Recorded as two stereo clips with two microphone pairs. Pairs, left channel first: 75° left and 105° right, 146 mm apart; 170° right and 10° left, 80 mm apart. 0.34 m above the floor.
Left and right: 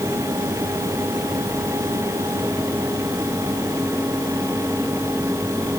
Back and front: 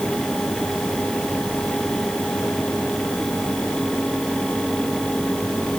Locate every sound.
Only background noise.